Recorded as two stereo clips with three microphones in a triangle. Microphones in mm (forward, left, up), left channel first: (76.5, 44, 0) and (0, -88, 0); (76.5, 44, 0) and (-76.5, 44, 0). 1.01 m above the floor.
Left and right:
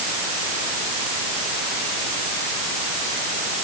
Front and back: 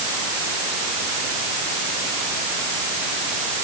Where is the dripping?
No dripping in this recording.